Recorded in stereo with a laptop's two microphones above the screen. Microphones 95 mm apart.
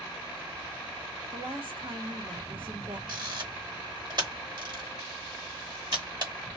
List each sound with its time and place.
1.3 s a woman speaking: 55° right (ahead or behind), 1.0 m
3.1 s a camera shutter: 50° right (ahead or behind), 0.9 m